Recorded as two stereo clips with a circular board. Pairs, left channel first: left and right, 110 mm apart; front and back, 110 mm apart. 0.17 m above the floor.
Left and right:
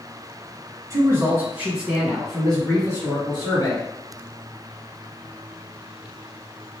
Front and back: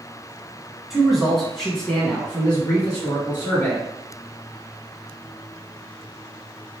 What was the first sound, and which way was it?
A man speaking, 95° right.